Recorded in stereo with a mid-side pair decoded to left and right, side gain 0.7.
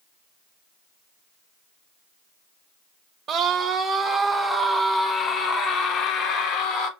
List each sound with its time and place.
3.3 s a scream: 35° right, 1.0 m; by 6.9 s 65° left, 1.6 m